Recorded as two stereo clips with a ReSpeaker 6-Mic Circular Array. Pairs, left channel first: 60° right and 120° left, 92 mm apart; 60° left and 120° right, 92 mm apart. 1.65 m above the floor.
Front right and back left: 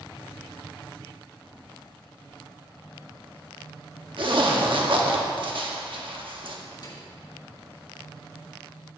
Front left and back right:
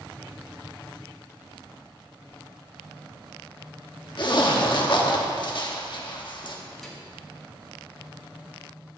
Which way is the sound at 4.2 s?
95° left.